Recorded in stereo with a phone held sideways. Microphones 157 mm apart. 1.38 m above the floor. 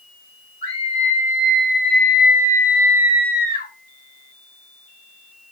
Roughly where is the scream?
Left.